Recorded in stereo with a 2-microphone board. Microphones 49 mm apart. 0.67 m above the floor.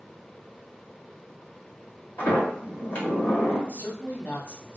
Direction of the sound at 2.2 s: 45° left (ahead or behind).